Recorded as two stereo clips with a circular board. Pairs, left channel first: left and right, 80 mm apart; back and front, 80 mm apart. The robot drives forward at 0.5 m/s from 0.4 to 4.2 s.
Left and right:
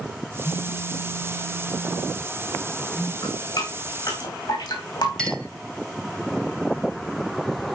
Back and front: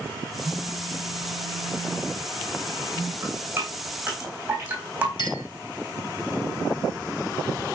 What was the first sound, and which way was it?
A phone buzzing, 45° left.